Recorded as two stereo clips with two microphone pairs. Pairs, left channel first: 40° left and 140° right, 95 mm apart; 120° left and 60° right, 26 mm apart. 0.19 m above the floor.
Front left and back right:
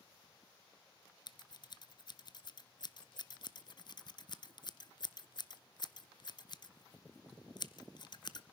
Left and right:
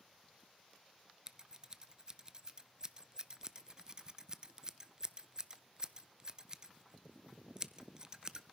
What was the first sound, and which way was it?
Scissors, 5° left.